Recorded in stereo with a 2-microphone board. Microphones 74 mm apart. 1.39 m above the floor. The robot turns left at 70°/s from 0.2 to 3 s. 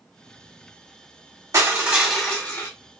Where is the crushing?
135° right, 1.0 m; by 2.7 s 140° left, 1.0 m.